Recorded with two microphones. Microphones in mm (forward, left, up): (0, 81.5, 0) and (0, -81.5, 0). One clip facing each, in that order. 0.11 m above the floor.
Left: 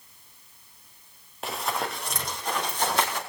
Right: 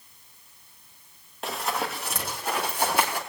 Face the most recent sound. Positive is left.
turn(degrees=-10)  # may be behind; listen again after turning